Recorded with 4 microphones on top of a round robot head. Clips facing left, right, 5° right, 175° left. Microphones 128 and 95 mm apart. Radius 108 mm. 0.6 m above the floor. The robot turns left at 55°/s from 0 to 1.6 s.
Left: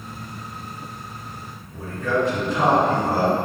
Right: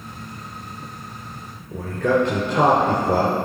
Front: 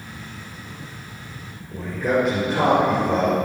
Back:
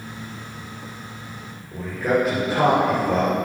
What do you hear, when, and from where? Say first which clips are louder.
1.7 s a man speaking: right 4 dB, even; 100° right, 3 m